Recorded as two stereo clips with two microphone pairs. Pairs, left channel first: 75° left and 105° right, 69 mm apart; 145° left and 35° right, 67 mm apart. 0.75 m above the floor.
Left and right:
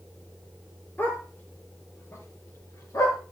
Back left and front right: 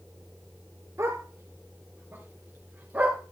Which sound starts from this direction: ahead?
A dog barking, at 1.0 s.